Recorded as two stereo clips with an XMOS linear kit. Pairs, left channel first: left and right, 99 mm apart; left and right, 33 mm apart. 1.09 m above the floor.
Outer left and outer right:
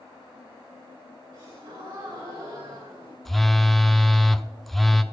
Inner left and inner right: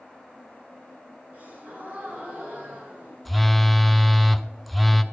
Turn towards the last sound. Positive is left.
turn(degrees=5)  # may be behind; listen again after turning